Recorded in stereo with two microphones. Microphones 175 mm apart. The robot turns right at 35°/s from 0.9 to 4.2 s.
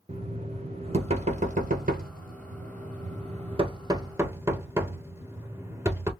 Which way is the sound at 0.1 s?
35° right (ahead or behind).